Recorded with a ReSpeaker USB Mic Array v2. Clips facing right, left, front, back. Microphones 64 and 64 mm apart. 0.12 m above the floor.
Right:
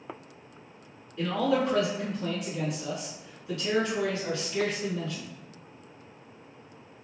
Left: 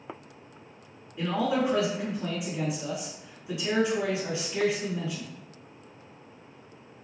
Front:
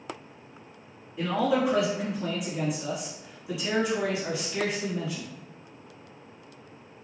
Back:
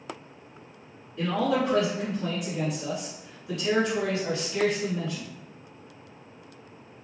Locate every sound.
1.2 s a man speaking: 55° left, 1.1 m